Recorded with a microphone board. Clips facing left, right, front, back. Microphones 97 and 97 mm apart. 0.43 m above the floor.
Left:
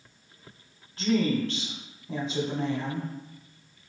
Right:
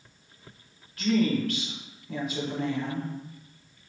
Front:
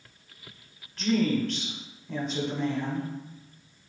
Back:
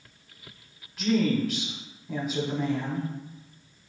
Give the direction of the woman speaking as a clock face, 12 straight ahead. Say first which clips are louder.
Right 1 dB, back 1 dB; 9 o'clock.